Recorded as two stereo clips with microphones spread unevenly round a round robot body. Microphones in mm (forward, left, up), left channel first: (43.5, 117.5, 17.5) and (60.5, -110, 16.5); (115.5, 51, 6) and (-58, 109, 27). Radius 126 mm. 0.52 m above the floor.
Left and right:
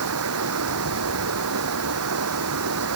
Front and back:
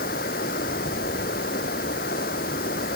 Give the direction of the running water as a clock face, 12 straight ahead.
2 o'clock.